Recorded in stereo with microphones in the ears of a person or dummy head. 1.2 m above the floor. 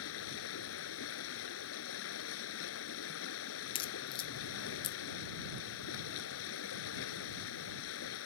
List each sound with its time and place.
0.0 s running water: 75° left (ahead or behind)
3.8 s a crack: 25° left (ahead or behind)